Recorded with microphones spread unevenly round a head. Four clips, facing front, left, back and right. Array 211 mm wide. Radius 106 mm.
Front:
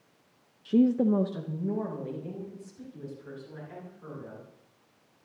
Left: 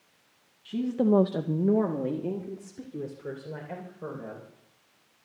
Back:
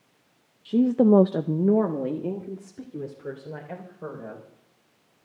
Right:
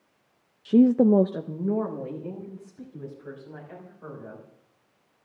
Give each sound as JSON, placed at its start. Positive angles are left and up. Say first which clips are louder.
{"t": 0.7, "sound": "a woman speaking", "louder": "right 8 dB, back 4 dB", "azimuth_deg": -95, "distance_m": 0.6}